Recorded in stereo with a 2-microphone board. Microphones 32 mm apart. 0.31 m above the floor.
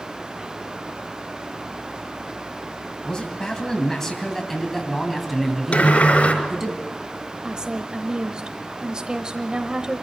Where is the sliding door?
50° left (ahead or behind), 4.5 m.